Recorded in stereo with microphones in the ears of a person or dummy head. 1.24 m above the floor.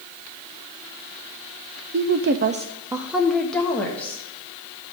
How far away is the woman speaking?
About 0.5 m.